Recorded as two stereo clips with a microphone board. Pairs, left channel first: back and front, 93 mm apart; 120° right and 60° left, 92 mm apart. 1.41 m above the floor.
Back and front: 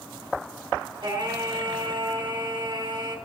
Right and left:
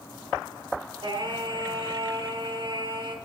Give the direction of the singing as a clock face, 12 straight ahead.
11 o'clock.